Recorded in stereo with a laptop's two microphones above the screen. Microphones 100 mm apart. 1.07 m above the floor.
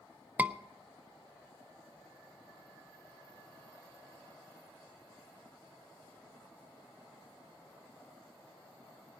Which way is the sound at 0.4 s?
15° right (ahead or behind).